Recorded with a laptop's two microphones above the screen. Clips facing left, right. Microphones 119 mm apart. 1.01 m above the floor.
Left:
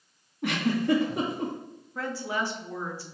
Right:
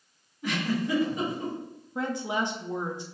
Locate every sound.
0.4 s a giggle: 70° left (ahead or behind), 1.7 m
1.9 s a woman speaking: 20° right (ahead or behind), 0.9 m